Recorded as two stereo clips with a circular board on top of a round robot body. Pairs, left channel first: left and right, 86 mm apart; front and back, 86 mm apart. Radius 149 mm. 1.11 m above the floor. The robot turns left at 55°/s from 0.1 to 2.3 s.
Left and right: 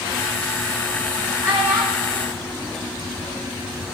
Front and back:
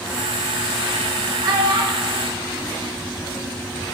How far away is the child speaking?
About 3 m.